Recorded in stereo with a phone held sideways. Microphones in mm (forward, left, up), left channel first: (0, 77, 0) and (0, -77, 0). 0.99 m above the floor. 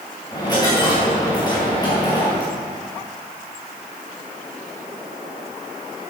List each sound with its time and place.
0.3 s a dropped coin: 25° left (ahead or behind), 4.5 m